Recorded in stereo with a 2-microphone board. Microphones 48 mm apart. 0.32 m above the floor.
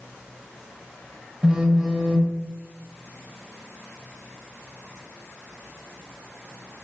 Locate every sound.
1.4 s a phone buzzing: 15° right (ahead or behind), 0.5 m